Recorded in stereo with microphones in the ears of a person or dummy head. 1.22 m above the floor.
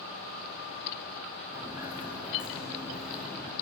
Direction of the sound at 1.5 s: 15° right (ahead or behind).